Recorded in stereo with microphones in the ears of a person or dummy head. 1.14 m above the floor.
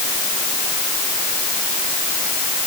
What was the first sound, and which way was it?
Only background noise.